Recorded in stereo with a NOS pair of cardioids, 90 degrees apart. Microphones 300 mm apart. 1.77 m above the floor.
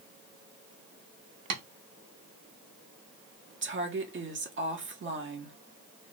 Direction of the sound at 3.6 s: 40° right.